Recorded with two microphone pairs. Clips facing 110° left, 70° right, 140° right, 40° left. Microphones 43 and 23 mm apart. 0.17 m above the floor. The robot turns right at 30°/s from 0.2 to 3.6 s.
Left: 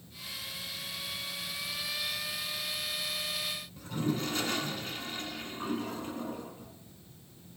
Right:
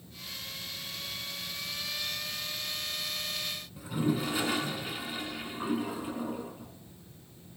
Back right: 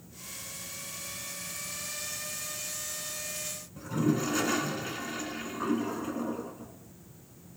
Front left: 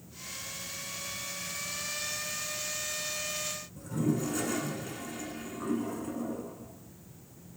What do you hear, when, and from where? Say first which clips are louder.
3.8 s a toilet flushing: right 3 dB, back right 3 dB; 140° right, 0.5 m